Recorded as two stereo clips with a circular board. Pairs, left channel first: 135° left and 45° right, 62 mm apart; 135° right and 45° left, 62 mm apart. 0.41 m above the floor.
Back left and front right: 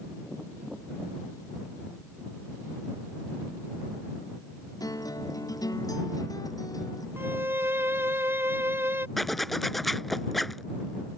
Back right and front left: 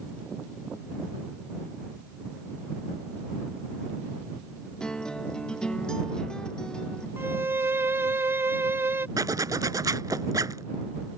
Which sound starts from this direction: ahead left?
A zipper, at 9.2 s.